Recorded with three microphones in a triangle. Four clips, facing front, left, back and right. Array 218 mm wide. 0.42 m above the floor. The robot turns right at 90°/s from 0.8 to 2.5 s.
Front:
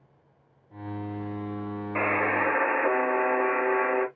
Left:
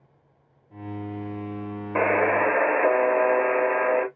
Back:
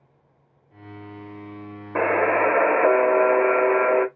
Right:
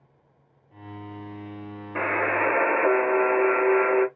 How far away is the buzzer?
About 0.9 m.